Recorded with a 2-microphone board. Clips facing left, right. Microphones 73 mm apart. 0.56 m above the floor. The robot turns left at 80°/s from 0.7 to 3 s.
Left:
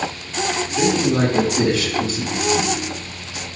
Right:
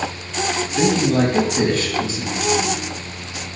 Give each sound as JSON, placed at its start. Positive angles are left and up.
{"t": 0.8, "sound": "a man speaking", "azimuth_deg": -50, "distance_m": 4.5}